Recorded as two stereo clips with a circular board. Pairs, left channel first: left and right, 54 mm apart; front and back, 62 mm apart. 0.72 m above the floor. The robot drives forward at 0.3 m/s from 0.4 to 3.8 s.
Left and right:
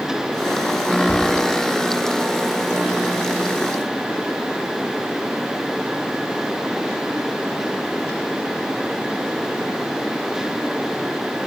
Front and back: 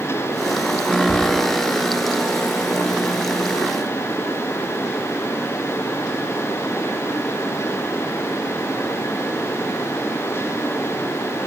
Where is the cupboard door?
55° left, 1.9 m.